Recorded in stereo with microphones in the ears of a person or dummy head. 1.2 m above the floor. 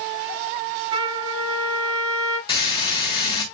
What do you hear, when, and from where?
0.9 s a trumpet: 30° right (ahead or behind), 6 m
2.5 s frying: 25° left (ahead or behind), 4 m